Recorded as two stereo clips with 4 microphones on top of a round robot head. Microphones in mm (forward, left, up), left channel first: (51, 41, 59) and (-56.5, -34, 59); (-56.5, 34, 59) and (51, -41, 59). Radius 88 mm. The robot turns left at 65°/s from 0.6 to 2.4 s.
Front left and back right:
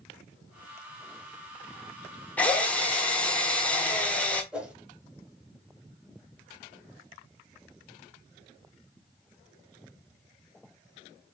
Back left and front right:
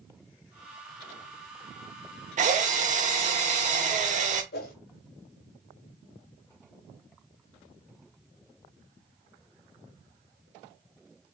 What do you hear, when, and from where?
2.4 s a drill: 45° right, 0.9 m
4.5 s a whoosh: 130° left, 0.9 m